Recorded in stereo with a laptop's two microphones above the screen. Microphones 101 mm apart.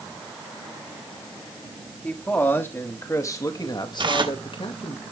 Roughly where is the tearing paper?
Right.